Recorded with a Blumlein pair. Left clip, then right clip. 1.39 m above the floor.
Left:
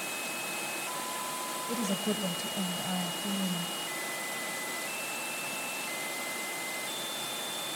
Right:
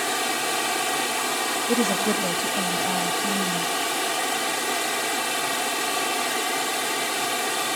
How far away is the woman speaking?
About 0.8 m.